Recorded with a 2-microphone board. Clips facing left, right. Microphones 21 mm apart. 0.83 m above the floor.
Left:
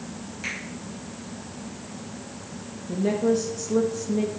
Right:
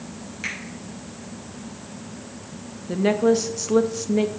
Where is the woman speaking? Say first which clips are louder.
Right 4 dB; 40° right (ahead or behind), 0.7 m.